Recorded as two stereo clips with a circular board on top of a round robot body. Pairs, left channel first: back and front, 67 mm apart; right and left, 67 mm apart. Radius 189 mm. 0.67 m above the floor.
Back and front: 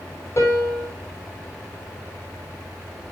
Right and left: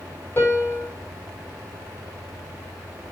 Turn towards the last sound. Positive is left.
turn(degrees=-145)